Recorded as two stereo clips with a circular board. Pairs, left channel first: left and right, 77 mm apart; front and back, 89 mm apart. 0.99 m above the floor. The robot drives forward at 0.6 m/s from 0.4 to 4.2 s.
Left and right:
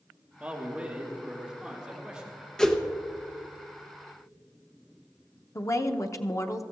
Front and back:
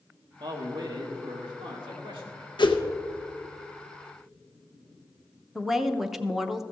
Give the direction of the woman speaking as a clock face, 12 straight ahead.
9 o'clock.